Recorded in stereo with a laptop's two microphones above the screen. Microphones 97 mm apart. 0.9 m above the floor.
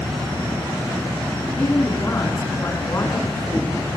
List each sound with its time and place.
1.6 s a woman speaking: 25° left (ahead or behind), 9.5 m